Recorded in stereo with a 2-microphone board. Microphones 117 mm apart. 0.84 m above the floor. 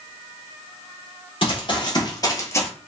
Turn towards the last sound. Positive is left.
turn(degrees=20)  # may be behind; listen again after turning